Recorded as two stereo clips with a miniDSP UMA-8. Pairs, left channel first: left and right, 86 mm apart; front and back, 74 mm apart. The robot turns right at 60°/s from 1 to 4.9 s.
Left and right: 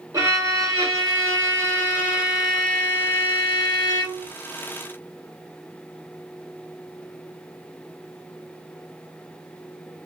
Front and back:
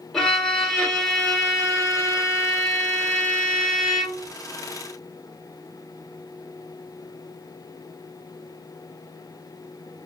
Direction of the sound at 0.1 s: 80° right.